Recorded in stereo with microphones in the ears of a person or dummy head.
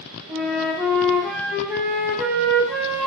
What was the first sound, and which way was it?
A flute, centre (ahead or behind).